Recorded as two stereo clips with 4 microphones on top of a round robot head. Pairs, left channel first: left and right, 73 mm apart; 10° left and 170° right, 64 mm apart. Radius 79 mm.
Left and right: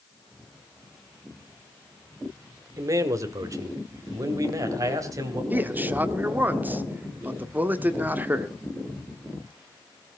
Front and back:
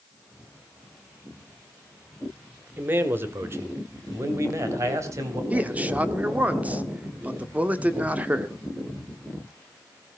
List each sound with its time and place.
2.8 s a man speaking: 120° right, 1.8 m; by 5.4 s 130° right, 3.5 m
5.5 s a man speaking: 130° right, 1.5 m